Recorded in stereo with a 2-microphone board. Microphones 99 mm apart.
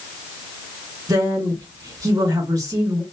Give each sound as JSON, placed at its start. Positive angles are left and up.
{"t": 1.1, "sound": "a woman speaking", "side_deg": -35, "distance_m": 1.7}